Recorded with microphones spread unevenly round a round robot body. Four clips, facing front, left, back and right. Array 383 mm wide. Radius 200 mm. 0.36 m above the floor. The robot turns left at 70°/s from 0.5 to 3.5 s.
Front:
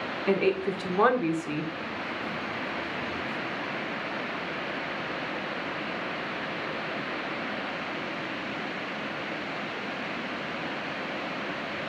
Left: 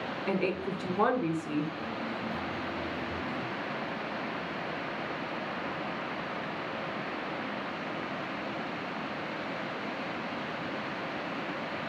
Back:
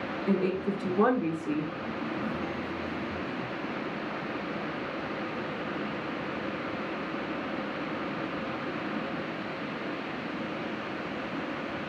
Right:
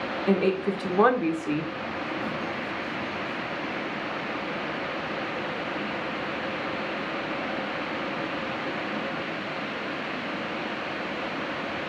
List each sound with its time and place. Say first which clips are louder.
0.3 s a woman speaking: right 8 dB, front 3 dB; 45° right, 0.9 m; by 1.7 s 130° right, 0.9 m